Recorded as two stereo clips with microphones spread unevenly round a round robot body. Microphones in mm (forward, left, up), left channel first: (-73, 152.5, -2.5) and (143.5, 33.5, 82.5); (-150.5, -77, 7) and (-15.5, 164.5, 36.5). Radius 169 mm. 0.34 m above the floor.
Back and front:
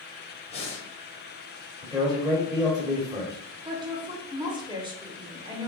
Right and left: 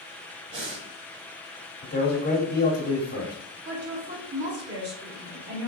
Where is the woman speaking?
60° left, 1.1 m.